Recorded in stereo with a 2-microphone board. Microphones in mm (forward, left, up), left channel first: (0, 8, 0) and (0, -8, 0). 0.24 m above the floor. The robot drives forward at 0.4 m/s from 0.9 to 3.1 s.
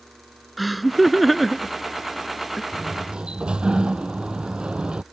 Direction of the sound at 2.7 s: 80° right.